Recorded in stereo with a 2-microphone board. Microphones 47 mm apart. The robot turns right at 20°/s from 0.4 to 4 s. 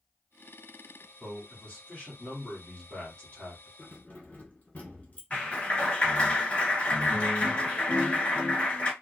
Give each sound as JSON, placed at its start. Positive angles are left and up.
{"t": 1.2, "sound": "a man speaking", "side_deg": 25, "distance_m": 1.3}
{"t": 3.8, "sound": "keys jangling", "side_deg": 35, "distance_m": 1.4}
{"t": 5.3, "sound": "a clap", "side_deg": 25, "distance_m": 1.7}